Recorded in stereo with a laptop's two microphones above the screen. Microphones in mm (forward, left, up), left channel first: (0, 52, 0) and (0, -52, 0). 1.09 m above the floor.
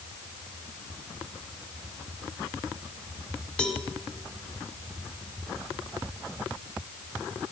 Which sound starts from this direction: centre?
A cowbell, at 3.6 s.